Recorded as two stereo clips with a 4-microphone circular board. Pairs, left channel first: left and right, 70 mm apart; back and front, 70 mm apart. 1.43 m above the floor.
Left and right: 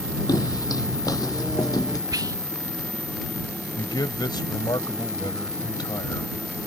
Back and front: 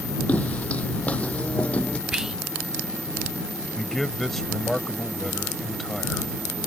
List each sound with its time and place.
0.3 s footsteps: 115° left; by 2.0 s 110° left
2.1 s whispering: 80° right
3.8 s a man speaking: 95° left